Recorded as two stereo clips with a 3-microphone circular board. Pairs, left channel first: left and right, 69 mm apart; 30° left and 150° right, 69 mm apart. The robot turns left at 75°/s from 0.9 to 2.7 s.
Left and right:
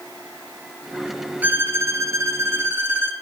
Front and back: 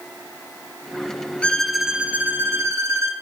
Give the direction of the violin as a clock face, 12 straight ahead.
1 o'clock.